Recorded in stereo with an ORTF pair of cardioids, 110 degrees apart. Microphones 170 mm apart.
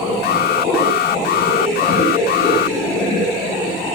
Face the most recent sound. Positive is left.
turn(degrees=70)